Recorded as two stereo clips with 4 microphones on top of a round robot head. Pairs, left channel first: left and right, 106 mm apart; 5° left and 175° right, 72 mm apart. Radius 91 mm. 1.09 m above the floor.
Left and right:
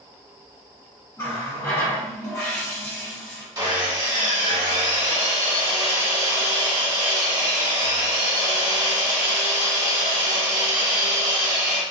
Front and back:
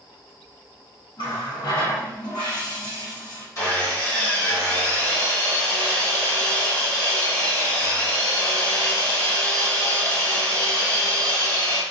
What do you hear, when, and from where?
1.2 s a running tap: 25° left, 0.9 m
3.5 s sawing: 40° right, 1.7 m